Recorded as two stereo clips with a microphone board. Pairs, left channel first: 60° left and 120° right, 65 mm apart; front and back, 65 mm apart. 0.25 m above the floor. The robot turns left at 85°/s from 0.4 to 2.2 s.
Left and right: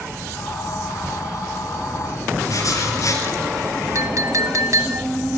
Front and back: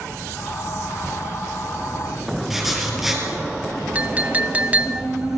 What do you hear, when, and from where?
2.5 s writing: 95° left, 3.5 m
4.0 s a clink: 120° right, 0.9 m